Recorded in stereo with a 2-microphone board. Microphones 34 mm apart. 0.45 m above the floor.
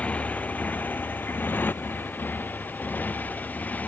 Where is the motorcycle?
45° left (ahead or behind); by 3.9 s 55° left (ahead or behind).